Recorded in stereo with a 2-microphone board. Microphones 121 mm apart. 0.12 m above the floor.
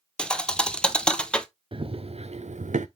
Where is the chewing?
No chewing in this recording.